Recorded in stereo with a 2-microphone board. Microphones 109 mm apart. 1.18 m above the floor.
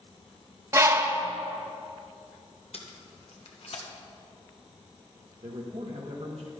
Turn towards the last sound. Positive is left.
turn(degrees=-70)  # may be behind; listen again after turning